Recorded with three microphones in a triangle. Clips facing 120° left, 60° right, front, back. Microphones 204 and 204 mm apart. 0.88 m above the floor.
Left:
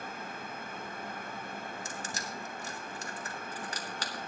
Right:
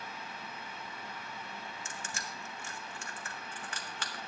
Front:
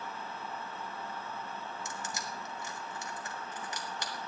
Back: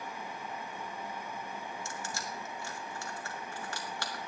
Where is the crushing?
70° left, 1.3 m.